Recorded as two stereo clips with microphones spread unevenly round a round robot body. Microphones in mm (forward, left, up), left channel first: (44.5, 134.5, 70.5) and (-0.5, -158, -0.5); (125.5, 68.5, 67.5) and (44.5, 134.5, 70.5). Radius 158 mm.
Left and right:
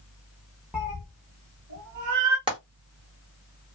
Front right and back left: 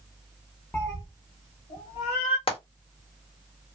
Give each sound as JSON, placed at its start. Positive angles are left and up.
{"t": 0.7, "sound": "a cat meowing", "azimuth_deg": 15, "distance_m": 0.6}
{"t": 2.5, "sound": "frying", "azimuth_deg": -35, "distance_m": 1.3}